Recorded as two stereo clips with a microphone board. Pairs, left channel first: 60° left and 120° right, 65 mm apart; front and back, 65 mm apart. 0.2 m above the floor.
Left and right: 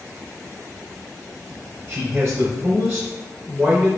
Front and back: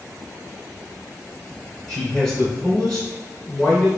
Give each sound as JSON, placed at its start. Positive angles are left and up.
{"t": 1.9, "sound": "a man speaking", "azimuth_deg": -80, "distance_m": 1.7}